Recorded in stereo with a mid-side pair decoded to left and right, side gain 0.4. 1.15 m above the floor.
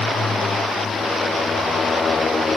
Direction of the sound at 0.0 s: 35° left.